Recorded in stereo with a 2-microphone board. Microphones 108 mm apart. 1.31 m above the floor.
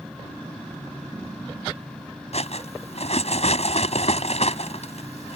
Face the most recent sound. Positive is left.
turn(degrees=80)